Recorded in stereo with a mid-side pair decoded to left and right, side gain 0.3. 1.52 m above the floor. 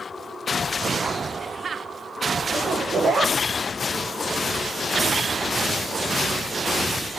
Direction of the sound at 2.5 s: 55° right.